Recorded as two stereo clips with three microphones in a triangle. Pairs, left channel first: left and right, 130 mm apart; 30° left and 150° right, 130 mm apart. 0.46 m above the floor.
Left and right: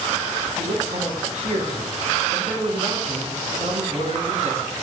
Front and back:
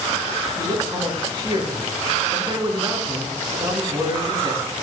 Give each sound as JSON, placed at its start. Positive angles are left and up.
{"t": 0.6, "sound": "a man speaking", "azimuth_deg": -100, "distance_m": 4.0}